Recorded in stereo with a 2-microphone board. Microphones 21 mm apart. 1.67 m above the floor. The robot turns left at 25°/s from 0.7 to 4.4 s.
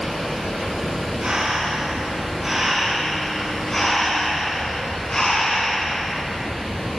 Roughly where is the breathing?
Behind right.